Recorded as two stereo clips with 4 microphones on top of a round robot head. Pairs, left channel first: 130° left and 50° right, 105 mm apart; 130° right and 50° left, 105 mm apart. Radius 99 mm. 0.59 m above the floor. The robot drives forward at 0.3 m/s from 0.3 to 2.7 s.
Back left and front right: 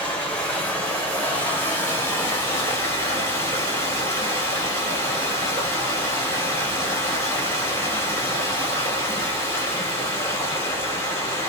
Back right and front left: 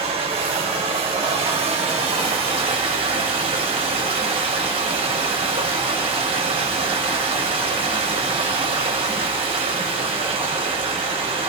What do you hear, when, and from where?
0.0 s running water: 55° left, 2.5 m; by 11.5 s 70° left, 2 m